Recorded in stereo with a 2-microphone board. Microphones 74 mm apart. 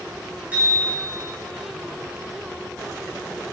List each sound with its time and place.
0.5 s a bicycle bell: 20° right (ahead or behind), 6 m